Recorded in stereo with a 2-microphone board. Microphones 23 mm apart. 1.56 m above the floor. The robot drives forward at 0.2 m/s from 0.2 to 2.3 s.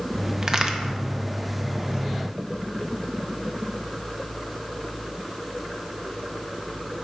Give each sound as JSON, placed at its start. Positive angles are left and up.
{"t": 0.4, "sound": "a crack", "side_deg": -30, "distance_m": 0.7}